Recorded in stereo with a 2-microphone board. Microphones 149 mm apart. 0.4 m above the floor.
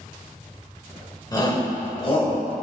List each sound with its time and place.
1.3 s a shout: 25° left (ahead or behind), 1.2 m; by 2.6 s 45° left (ahead or behind), 1.9 m